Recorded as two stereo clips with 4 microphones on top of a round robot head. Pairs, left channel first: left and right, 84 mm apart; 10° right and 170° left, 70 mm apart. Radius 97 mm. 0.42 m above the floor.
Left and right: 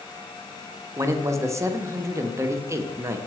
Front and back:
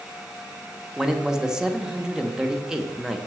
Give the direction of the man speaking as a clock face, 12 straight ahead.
4 o'clock.